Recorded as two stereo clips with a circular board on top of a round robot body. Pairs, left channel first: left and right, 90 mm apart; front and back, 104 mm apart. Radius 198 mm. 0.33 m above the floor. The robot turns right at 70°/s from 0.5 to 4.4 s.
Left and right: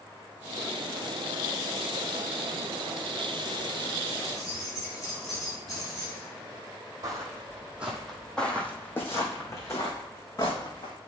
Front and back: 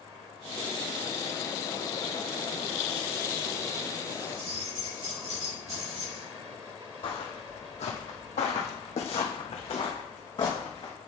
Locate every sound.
4.2 s keys jangling: 165° left, 3.5 m; by 6.3 s 175° left, 3.5 m
7.0 s footsteps: 40° right, 0.9 m; by 10.9 s 50° left, 1.9 m